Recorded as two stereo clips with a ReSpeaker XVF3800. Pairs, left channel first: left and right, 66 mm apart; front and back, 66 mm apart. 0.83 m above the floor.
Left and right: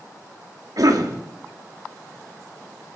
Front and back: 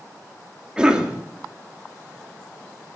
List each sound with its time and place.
0.8 s a cough: 105° right, 2.0 m